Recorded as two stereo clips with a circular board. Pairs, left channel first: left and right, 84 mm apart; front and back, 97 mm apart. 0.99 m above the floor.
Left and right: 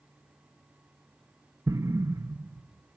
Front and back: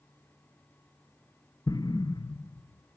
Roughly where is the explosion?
Ahead right.